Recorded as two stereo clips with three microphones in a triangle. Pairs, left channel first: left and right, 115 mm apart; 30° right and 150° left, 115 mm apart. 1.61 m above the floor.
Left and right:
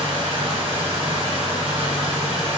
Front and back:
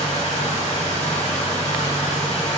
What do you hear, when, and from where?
0.0 s running water: 45° right, 0.9 m